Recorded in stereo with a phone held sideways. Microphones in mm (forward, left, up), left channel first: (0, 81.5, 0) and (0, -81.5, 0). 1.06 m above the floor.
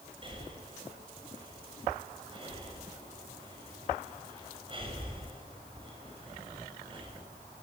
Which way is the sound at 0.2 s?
30° right (ahead or behind).